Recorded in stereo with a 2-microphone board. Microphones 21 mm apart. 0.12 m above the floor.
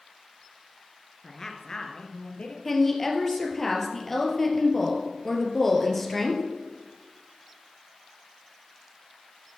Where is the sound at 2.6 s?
15° left (ahead or behind), 2.5 m.